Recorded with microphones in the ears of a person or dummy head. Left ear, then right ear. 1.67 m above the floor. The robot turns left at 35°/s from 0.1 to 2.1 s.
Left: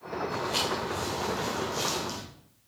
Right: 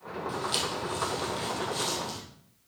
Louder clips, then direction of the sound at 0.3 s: Left 1 dB; 55° right (ahead or behind).